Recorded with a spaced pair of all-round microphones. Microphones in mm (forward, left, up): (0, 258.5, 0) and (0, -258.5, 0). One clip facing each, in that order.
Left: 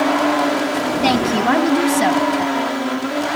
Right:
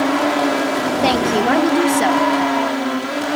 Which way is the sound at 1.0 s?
30° left (ahead or behind).